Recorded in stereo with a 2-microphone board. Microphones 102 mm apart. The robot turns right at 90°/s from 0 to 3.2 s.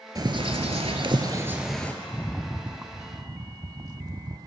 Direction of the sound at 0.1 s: 140° right.